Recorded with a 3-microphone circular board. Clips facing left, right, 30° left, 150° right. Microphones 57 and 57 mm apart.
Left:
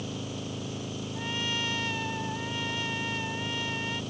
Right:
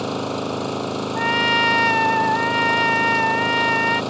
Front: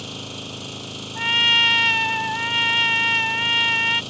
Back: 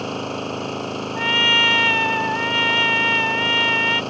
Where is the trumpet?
70° right.